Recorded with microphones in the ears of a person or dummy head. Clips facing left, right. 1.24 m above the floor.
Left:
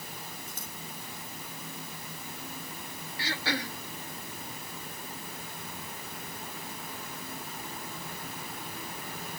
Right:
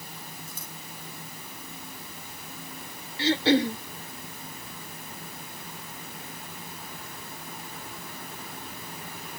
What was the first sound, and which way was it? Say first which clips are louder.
Scissors: right 1 dB; 90° right.